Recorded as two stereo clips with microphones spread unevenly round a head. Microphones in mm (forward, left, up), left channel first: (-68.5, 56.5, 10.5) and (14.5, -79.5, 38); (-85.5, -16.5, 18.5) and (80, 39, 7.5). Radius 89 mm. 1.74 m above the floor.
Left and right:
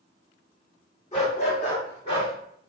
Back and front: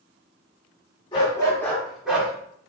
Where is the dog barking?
155° left, 1.6 m; by 2.3 s 90° left, 1.4 m.